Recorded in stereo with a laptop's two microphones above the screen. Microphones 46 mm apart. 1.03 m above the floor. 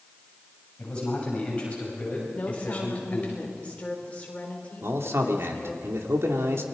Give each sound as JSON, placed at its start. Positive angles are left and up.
{"t": 0.8, "sound": "a man speaking", "side_deg": 25, "distance_m": 7.5}
{"t": 2.3, "sound": "a woman speaking", "side_deg": 30, "distance_m": 3.5}
{"t": 4.8, "sound": "a man speaking", "side_deg": -65, "distance_m": 3.0}